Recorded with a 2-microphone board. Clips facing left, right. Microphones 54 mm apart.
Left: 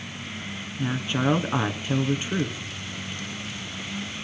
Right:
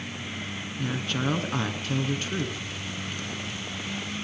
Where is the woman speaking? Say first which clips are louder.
Left 4 dB; 15° left (ahead or behind), 1.2 m.